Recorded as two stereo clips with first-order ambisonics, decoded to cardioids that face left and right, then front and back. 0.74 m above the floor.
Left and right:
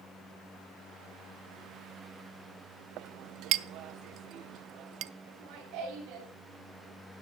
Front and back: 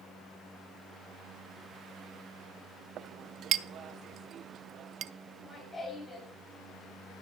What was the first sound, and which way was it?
A clink, 130° right.